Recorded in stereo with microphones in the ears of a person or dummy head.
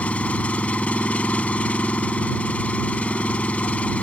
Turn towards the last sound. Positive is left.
turn(degrees=5)  # may be behind; listen again after turning